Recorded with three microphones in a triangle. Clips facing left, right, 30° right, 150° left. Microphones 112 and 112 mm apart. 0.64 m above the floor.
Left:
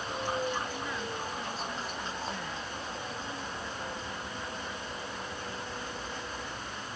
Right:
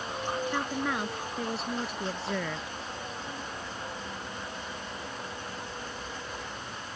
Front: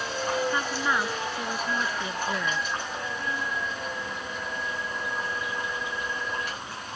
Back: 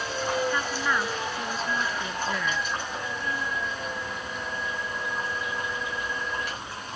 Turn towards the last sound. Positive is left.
turn(degrees=-105)